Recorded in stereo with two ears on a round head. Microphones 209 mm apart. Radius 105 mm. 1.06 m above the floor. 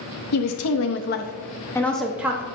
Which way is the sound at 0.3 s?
80° left.